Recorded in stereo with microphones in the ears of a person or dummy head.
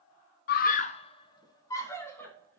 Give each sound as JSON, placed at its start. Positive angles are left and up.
{"t": 0.5, "sound": "a scream", "side_deg": 55, "distance_m": 0.9}